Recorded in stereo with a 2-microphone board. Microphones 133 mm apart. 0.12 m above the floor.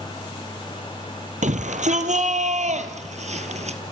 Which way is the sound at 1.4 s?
65° right (ahead or behind).